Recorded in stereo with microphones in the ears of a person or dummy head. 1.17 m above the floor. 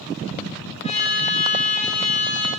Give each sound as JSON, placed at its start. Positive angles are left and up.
{"t": 0.8, "sound": "a trumpet", "side_deg": 35, "distance_m": 1.5}